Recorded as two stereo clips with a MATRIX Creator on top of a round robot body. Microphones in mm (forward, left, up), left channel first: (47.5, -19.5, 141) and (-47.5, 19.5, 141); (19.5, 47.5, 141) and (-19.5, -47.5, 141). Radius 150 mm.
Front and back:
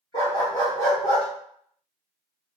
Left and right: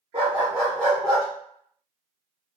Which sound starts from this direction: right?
A dog barking, at 0.1 s.